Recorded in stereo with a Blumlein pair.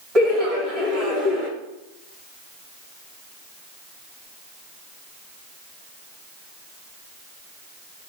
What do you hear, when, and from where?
0.1 s laughter: 25° right, 1.7 m